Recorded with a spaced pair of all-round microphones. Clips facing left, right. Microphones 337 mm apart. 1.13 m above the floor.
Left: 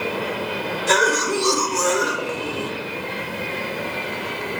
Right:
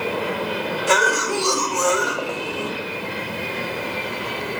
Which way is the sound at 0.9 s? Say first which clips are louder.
Left 2 dB; 25° left (ahead or behind).